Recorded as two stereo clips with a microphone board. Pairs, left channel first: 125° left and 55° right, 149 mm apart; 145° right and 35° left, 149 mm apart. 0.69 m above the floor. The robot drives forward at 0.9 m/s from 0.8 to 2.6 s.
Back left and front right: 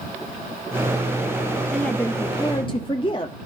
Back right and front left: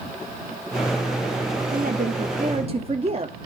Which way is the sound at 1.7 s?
40° left.